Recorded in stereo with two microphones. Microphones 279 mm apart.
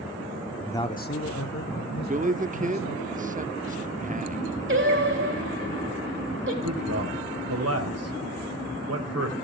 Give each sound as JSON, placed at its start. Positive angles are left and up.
{"t": 0.7, "sound": "a man speaking", "side_deg": 5, "distance_m": 0.8}
{"t": 2.1, "sound": "a man speaking", "side_deg": -30, "distance_m": 0.7}
{"t": 4.7, "sound": "singing", "side_deg": -45, "distance_m": 3.0}
{"t": 6.6, "sound": "a man speaking", "side_deg": -60, "distance_m": 2.5}